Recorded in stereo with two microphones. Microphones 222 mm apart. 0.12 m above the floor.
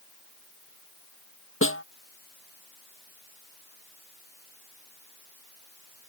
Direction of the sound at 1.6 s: 70° left (ahead or behind).